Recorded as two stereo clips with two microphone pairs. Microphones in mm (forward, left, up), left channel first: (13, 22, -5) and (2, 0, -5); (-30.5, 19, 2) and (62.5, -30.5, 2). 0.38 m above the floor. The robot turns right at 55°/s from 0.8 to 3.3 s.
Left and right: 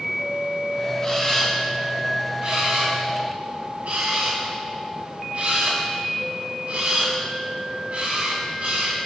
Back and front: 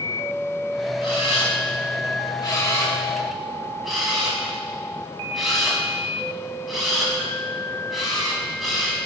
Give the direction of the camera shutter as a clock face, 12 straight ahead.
8 o'clock.